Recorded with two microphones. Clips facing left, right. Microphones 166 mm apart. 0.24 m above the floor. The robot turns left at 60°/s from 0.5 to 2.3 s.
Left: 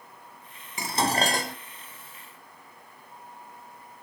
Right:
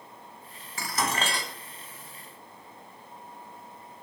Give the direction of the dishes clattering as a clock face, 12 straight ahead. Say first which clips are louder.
Left 4 dB; 7 o'clock.